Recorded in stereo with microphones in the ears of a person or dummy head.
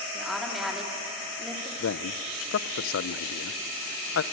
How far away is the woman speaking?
About 3 m.